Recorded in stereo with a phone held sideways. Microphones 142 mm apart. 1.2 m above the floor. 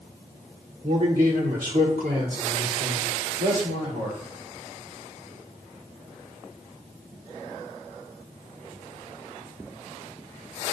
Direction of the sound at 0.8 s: 80° right.